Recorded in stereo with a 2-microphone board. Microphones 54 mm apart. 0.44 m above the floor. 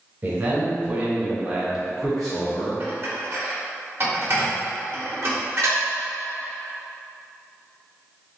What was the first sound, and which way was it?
A man speaking, 40° right (ahead or behind).